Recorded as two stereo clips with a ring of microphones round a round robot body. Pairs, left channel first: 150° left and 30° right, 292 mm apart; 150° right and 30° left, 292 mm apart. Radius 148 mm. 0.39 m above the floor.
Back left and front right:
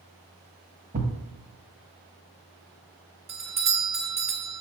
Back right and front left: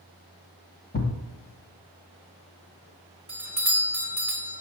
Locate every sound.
0.9 s a thud: 95° right, 1.2 m
3.3 s a doorbell: 45° right, 1.6 m